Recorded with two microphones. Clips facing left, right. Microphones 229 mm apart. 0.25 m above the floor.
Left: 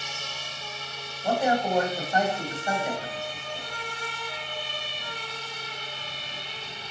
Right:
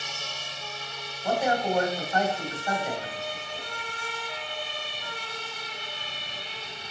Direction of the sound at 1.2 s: 15° left (ahead or behind).